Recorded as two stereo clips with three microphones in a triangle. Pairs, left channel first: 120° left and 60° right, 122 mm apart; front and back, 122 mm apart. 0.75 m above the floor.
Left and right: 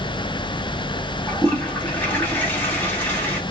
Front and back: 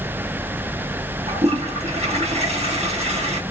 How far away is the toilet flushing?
About 1.2 m.